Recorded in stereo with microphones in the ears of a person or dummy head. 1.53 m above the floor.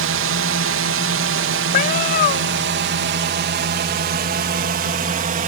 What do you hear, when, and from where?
0.0 s a drone: 60° right (ahead or behind); by 5.5 s 45° right (ahead or behind)
1.7 s a cat meowing: 45° left (ahead or behind)